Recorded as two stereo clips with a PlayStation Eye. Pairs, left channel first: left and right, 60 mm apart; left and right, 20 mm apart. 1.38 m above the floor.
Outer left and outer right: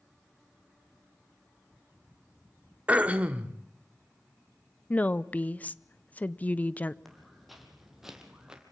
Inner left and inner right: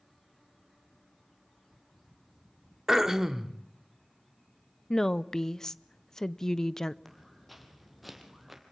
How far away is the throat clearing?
About 1.3 m.